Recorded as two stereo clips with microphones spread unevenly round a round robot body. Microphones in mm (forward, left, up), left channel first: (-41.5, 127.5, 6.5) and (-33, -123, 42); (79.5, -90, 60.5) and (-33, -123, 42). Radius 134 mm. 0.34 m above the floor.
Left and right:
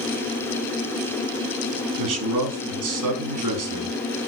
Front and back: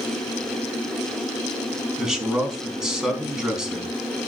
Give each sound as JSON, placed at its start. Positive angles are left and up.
{"t": 2.0, "sound": "a man speaking", "azimuth_deg": -80, "distance_m": 4.5}